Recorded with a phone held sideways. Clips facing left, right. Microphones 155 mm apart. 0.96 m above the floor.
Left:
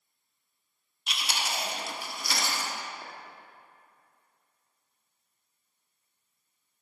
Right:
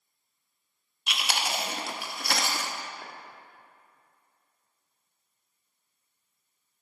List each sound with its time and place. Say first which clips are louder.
1.1 s chewing: right 3 dB; 65° right (ahead or behind), 0.6 m
3.0 s a clink: even; 5° left (ahead or behind), 1.1 m